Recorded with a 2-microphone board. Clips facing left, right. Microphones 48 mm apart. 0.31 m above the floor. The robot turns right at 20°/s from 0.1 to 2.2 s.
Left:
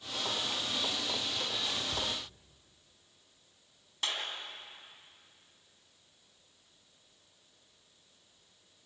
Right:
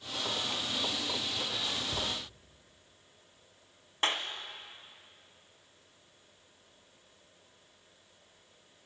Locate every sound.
1.9 s a cupboard door: 10° right (ahead or behind), 3 m; by 2.1 s 5° right (ahead or behind), 3 m
4.0 s a clap: 35° right (ahead or behind), 2.5 m